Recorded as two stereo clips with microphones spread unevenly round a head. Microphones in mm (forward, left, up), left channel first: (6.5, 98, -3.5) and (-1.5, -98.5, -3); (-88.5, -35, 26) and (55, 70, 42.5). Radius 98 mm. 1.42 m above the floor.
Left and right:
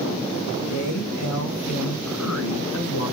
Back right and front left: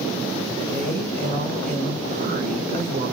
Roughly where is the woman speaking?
Left.